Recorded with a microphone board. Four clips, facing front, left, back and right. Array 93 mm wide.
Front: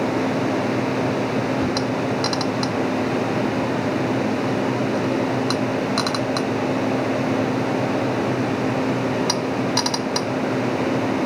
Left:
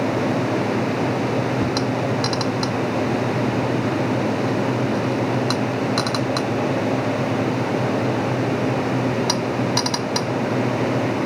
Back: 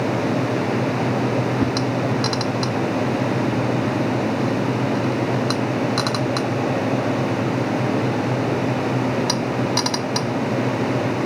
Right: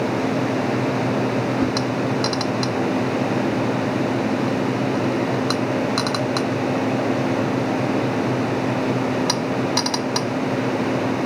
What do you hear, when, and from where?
1.6 s a whoosh: 160° left, 5 m